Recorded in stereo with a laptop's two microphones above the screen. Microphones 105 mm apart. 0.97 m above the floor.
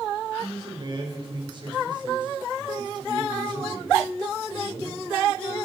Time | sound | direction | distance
0.4 | a man speaking | 45° right (ahead or behind) | 3 m